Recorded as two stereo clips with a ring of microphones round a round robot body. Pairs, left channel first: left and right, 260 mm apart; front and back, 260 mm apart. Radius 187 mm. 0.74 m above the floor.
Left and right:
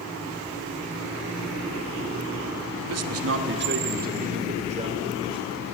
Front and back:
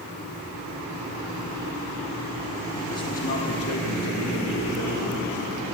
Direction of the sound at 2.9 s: 85° right.